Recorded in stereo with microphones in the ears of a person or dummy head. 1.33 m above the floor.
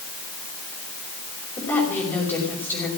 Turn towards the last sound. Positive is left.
turn(degrees=20)  # may be behind; listen again after turning